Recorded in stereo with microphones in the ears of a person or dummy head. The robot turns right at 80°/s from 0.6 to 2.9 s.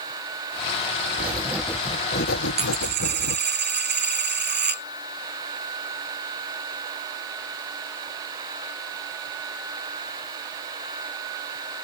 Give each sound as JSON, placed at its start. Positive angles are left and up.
{"t": 1.2, "sound": "writing", "azimuth_deg": -35}
{"t": 2.6, "sound": "a dropped coin", "side_deg": -30}